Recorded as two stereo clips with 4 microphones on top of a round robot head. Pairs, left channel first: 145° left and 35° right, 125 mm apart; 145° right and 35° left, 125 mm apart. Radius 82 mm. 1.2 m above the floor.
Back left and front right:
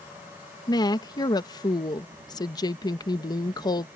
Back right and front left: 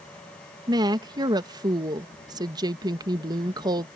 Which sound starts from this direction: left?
A woman speaking, at 0.7 s.